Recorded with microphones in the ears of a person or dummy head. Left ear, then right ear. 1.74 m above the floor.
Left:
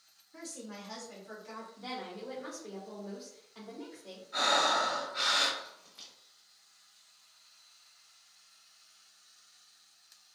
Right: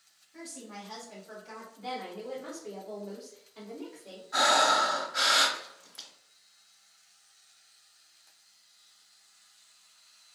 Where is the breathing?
35° right (ahead or behind), 0.8 m.